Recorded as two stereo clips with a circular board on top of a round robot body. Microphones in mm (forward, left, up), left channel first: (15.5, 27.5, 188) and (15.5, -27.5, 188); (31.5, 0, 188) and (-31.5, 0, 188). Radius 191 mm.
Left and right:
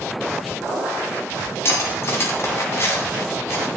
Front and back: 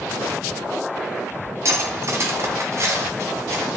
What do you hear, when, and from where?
1.6 s cutlery clinking: 135° left, 2.5 m